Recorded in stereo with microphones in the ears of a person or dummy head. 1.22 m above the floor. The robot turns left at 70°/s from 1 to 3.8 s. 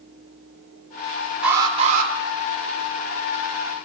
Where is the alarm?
5° right, 3 m; by 2.1 s 50° right, 3 m.